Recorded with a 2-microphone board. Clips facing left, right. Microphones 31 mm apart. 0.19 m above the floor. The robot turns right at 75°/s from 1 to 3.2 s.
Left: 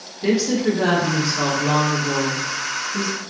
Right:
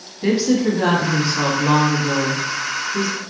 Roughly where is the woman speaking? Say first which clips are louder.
Right 2 dB; centre.